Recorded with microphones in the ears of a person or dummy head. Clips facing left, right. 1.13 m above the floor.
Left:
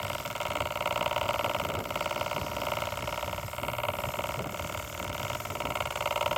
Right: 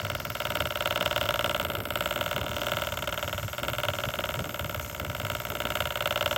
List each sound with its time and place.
Only background noise.